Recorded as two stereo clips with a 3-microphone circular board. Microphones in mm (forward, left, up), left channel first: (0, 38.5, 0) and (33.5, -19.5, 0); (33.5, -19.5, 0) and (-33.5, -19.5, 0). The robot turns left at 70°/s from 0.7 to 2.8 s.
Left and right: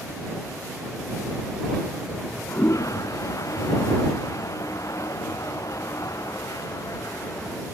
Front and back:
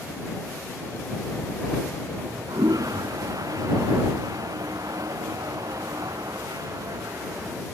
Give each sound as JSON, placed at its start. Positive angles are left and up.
{"t": 2.1, "sound": "a toilet flushing", "azimuth_deg": -155}